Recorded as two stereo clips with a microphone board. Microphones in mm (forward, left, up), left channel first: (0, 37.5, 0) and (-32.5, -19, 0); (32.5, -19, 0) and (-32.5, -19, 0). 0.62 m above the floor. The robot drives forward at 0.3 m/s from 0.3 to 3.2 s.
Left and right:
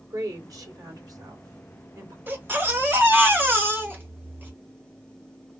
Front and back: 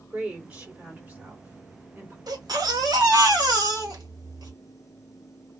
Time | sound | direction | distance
0.1 | a woman speaking | 110° right | 2 m
2.3 | a baby crying | straight behind | 1.2 m